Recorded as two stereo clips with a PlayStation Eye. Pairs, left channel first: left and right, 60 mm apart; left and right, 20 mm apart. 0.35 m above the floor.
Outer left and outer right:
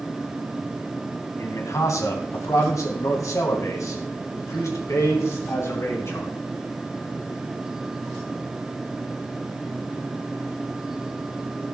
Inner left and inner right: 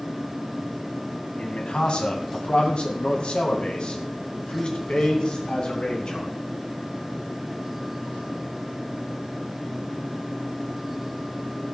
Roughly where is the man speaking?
Left.